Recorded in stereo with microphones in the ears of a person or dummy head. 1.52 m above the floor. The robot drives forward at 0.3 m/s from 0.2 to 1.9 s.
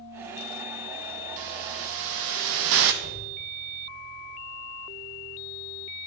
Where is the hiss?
70° right (ahead or behind), 1.3 m.